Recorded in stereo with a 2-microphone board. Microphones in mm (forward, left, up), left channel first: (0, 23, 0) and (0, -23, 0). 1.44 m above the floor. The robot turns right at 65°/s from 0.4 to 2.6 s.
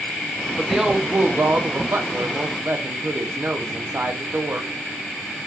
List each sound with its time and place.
0.6 s a woman speaking: straight behind, 0.5 m; by 4.7 s 50° right, 0.5 m